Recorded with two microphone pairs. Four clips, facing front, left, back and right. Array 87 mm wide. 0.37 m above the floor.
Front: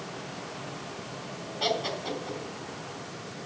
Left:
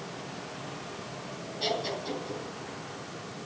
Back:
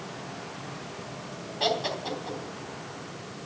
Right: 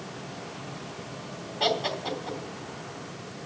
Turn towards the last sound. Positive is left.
turn(degrees=-125)